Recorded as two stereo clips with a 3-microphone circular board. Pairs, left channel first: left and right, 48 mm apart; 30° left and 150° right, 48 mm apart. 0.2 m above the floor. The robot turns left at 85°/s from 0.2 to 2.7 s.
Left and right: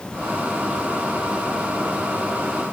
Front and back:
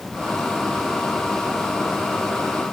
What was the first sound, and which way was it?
Only background noise.